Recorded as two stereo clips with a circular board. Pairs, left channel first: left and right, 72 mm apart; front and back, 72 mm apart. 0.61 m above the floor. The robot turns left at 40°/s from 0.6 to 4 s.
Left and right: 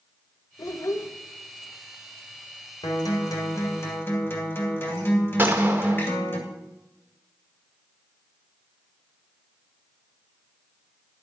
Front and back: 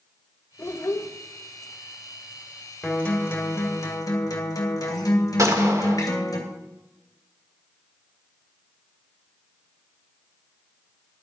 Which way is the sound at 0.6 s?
60° left.